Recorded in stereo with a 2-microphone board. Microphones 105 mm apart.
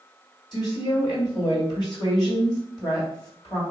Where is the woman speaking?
45° left (ahead or behind), 1.9 m.